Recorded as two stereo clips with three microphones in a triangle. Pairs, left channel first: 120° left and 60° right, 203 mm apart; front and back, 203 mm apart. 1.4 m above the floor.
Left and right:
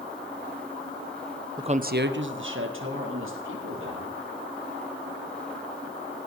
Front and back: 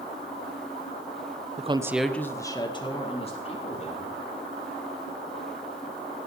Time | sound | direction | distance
1.6 | a woman speaking | 130° right | 0.8 m